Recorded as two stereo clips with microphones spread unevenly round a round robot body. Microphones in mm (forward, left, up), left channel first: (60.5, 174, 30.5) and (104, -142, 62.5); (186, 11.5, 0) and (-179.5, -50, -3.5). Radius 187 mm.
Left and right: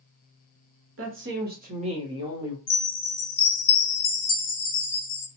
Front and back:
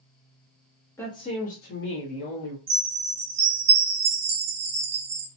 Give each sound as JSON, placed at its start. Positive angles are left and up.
{"t": 1.0, "sound": "a woman speaking", "azimuth_deg": -70, "distance_m": 1.1}
{"t": 2.7, "sound": "a chime", "azimuth_deg": 135, "distance_m": 0.8}